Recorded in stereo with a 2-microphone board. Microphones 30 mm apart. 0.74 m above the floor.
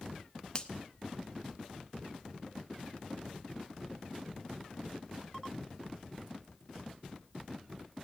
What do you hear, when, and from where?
0.6 s a finger snap: 25° left (ahead or behind), 0.8 m